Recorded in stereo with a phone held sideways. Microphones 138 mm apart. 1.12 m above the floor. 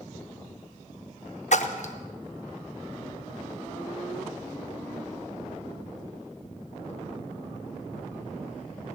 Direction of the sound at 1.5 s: 60° left (ahead or behind).